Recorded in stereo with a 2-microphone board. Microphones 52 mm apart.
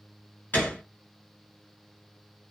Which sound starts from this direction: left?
A gunshot, at 0.5 s.